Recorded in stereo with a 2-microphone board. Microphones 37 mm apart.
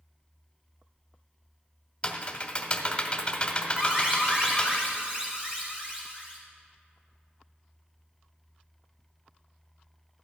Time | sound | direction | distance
2.0 | typing on a keyboard | 30° left (ahead or behind) | 1.1 m
3.8 | an alarm | 30° right (ahead or behind) | 3.5 m